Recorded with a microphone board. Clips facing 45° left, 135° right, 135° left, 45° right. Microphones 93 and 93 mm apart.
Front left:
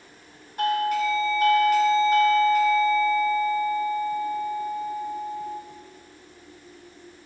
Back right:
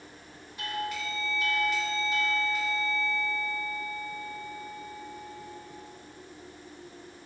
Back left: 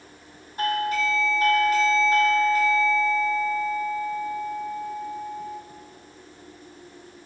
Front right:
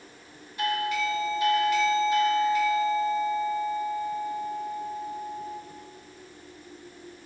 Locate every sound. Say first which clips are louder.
0.6 s a doorbell: front left 11 dB, back left 3 dB; 85° left, 4 m